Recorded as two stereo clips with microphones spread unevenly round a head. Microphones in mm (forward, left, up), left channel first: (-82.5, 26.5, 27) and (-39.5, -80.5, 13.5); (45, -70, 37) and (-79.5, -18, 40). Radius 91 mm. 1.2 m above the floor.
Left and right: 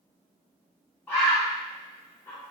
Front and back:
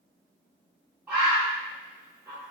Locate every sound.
1.1 s a bird: 95° left, 0.6 m